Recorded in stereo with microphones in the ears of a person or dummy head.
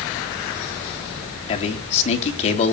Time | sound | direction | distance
1.5 | a man speaking | 40° left (ahead or behind) | 3.5 m